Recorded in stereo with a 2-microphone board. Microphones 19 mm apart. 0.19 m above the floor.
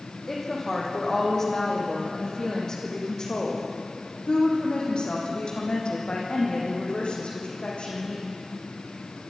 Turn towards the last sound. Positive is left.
turn(degrees=80)